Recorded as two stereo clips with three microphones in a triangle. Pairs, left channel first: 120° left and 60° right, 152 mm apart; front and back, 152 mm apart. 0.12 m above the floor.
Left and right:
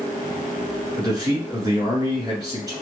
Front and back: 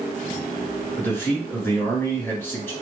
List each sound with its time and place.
1.0 s a man speaking: 55° right, 1.4 m